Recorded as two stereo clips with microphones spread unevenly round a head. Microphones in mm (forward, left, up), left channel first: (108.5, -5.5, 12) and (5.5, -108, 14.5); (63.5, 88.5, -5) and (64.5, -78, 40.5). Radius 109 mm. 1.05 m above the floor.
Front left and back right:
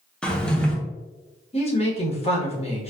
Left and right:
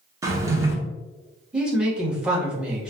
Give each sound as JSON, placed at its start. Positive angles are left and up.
{"t": 0.2, "sound": "a drawer", "azimuth_deg": -35, "distance_m": 0.8}
{"t": 1.5, "sound": "a woman speaking", "azimuth_deg": 0, "distance_m": 1.3}